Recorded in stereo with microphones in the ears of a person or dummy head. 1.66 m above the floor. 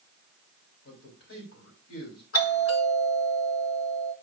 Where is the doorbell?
80° left, 3.5 m.